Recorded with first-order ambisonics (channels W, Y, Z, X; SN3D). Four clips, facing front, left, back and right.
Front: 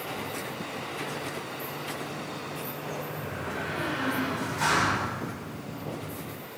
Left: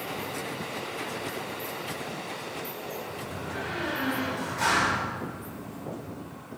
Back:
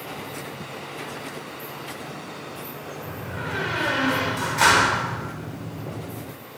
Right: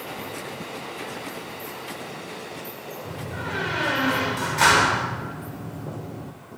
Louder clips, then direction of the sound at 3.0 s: Right 4 dB, back 3 dB; 135° right.